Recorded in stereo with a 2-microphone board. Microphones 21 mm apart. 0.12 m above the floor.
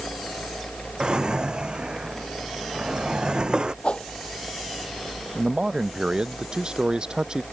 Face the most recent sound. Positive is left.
turn(degrees=-45)  # may be behind; listen again after turning